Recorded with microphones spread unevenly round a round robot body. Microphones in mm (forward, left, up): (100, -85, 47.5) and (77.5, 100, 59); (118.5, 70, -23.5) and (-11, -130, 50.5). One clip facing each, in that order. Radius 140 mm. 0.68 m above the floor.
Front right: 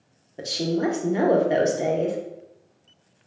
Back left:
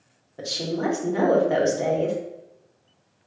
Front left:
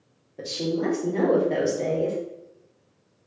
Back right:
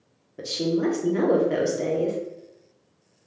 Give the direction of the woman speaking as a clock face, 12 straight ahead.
1 o'clock.